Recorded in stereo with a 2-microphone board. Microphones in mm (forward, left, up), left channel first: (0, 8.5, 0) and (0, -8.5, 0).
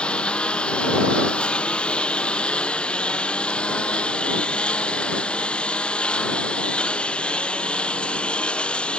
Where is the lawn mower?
80° left; by 9.0 s 85° left.